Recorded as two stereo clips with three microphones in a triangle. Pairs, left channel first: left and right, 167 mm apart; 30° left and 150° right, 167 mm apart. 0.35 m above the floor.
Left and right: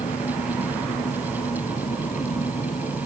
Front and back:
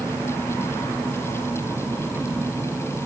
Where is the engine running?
135° left.